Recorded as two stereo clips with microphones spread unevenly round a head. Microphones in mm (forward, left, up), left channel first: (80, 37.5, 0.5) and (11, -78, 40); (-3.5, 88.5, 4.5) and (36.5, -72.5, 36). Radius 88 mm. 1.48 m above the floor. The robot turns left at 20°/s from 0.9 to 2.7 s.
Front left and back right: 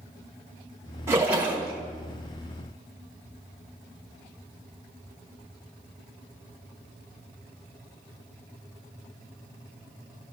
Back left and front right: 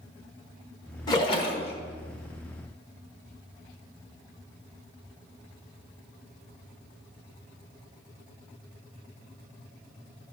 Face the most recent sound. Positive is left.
turn(degrees=140)